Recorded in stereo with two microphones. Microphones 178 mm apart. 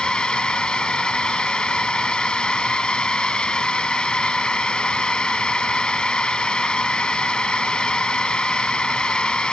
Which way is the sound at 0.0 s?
5° left (ahead or behind).